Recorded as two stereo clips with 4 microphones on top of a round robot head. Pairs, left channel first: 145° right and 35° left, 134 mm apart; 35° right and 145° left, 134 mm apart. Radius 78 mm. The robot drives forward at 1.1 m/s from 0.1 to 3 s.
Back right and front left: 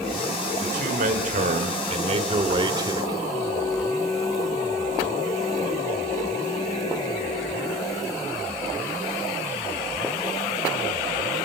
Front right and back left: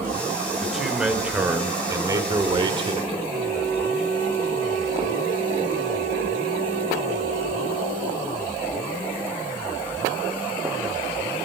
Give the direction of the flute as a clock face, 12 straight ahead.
7 o'clock.